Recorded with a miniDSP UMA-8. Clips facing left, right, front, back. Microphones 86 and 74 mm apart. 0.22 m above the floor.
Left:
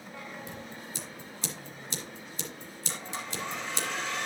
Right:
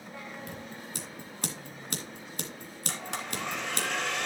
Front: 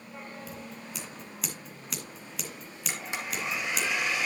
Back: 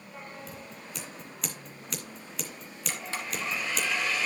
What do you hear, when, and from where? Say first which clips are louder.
0.5 s scissors: right 1 dB, front 2 dB; 90° right, 2 m
2.9 s a blender: right 2 dB, even; 70° right, 2 m